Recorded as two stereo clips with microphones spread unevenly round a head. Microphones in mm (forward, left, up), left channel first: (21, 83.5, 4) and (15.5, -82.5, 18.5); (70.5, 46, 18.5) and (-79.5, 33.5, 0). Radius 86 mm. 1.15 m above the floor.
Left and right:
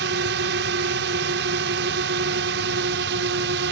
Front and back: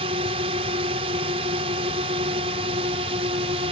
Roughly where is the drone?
Behind right.